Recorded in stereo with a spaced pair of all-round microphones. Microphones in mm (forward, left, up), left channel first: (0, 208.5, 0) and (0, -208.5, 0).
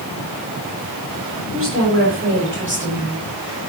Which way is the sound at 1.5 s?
30° right (ahead or behind).